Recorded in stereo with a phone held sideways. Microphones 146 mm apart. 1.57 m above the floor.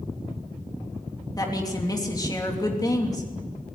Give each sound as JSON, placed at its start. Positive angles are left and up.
{"t": 1.4, "sound": "a woman speaking", "side_deg": 25, "distance_m": 3.0}